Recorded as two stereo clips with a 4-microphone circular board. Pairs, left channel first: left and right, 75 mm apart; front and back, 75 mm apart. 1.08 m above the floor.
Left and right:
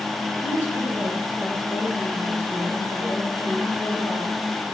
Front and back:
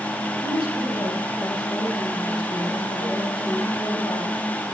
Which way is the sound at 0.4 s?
20° right.